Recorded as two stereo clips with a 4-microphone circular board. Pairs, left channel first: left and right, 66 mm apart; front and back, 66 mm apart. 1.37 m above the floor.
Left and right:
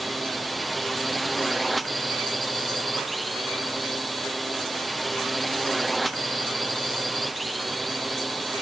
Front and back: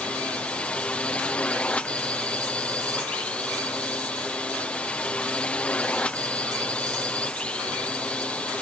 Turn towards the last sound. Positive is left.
turn(degrees=0)